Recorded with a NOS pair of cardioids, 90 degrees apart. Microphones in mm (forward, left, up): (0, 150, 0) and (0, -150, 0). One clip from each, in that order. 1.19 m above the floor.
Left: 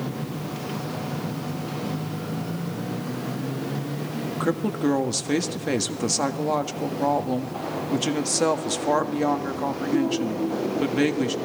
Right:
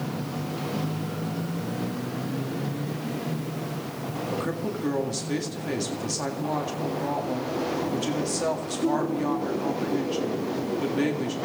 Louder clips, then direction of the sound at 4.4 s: Left 5 dB; 45° left.